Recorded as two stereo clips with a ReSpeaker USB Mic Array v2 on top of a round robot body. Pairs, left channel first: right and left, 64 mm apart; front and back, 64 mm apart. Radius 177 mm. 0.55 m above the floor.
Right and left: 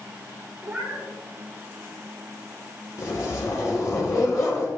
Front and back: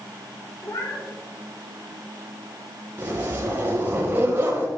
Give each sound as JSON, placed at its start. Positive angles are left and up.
{"t": 0.6, "sound": "a cat meowing", "azimuth_deg": 15, "distance_m": 4.5}
{"t": 3.0, "sound": "a zipper", "azimuth_deg": -120, "distance_m": 4.0}